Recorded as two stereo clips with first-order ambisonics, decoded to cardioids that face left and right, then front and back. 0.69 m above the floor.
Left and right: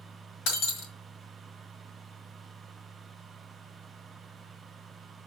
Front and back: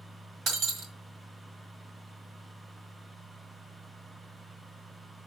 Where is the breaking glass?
125° left, 1.7 m.